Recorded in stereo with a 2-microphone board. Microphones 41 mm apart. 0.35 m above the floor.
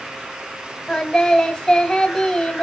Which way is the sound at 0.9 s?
15° left (ahead or behind).